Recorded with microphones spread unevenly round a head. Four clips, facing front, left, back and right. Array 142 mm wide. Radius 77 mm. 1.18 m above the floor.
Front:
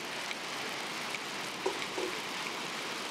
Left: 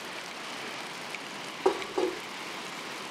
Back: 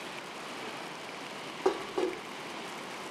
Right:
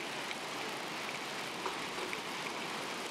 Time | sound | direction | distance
1.6 | dishes clattering | 125° left | ?